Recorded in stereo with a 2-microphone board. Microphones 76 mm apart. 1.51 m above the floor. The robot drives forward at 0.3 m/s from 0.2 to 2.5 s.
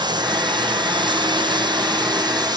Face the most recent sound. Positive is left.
turn(degrees=-65)  # may be behind; listen again after turning